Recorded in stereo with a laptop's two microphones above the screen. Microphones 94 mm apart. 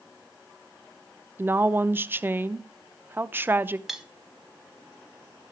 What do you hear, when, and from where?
1.4 s a woman speaking: 25° right (ahead or behind), 0.5 m
3.9 s cutlery clinking: 5° right (ahead or behind), 1.6 m